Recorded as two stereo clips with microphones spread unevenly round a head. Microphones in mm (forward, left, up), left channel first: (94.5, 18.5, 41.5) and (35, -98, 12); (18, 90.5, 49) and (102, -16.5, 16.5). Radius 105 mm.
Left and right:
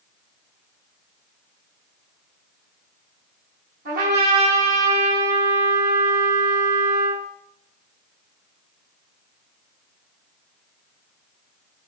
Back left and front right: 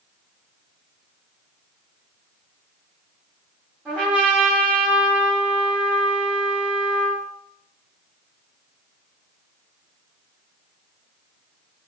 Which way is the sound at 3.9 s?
135° right.